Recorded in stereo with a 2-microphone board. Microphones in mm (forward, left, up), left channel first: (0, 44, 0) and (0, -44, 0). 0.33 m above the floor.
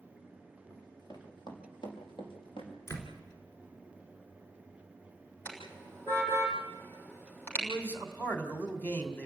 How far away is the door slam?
About 4 m.